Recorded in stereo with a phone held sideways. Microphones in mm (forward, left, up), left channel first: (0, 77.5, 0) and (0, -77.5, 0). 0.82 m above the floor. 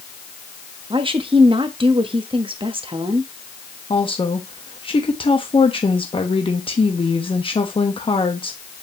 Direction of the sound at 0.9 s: 35° right (ahead or behind).